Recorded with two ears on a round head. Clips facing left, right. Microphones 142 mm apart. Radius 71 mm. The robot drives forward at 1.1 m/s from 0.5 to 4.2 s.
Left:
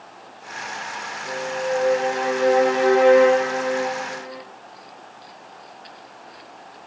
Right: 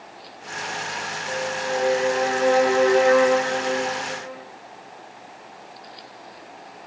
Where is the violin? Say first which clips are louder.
Left 3 dB; 40° left (ahead or behind), 7 m; by 4.4 s 25° left (ahead or behind), 9.5 m.